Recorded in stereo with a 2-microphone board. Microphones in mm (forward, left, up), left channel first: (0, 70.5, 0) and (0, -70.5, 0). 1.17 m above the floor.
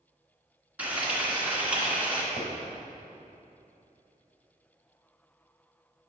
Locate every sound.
0.8 s frying: 10° right (ahead or behind), 1.9 m
2.4 s a pop: 70° left (ahead or behind), 2.5 m